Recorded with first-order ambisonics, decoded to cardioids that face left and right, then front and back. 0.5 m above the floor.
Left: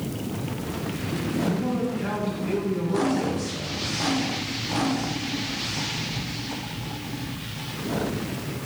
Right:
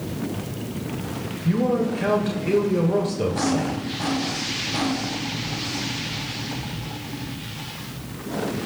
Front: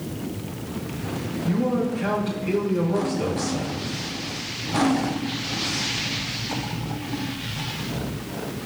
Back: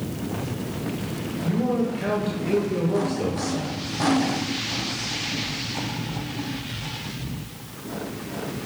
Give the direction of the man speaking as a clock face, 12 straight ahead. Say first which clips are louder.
Right 10 dB, even; 3 o'clock.